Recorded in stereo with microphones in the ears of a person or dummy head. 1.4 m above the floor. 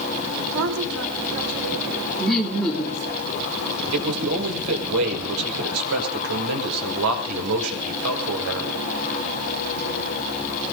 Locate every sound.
0.5 s a woman speaking: 85° right, 3.5 m; by 3.2 s 55° right (ahead or behind), 6.5 m
2.2 s laughter: 5° left (ahead or behind), 3 m
3.9 s a man speaking: 85° right, 5.5 m